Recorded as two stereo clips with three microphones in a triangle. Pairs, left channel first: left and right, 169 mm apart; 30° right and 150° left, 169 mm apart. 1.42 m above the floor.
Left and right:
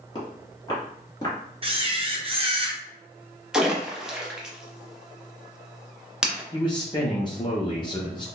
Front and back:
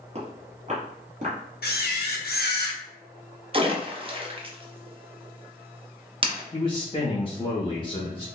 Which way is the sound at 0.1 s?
135° left.